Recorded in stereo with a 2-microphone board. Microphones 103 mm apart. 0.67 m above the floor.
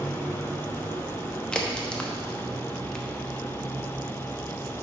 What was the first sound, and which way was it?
A crack, 10° left (ahead or behind).